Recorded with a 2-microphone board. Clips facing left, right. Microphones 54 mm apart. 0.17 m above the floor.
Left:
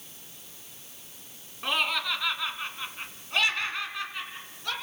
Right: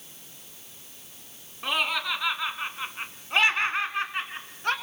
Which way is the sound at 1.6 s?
5° right (ahead or behind).